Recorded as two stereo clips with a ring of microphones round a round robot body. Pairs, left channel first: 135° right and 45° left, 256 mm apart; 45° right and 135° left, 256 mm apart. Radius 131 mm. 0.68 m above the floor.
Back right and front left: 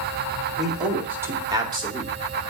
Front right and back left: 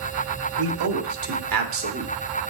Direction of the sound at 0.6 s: 135° left.